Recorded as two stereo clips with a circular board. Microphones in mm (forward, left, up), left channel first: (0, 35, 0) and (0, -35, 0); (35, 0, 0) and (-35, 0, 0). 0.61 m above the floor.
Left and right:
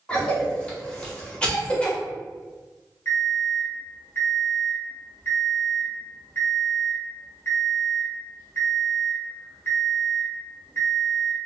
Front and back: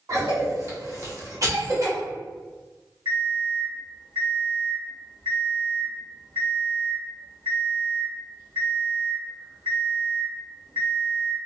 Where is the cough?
160° left, 1.1 m.